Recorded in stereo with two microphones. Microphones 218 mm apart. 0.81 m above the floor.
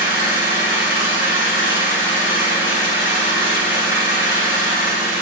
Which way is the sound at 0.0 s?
10° right (ahead or behind).